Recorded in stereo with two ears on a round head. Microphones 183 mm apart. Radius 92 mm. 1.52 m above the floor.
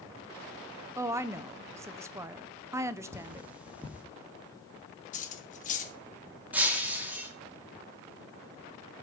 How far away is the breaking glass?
About 1.9 m.